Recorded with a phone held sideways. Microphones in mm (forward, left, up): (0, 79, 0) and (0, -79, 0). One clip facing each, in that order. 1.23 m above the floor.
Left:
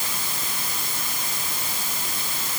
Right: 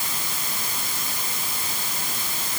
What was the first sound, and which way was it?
Only background noise.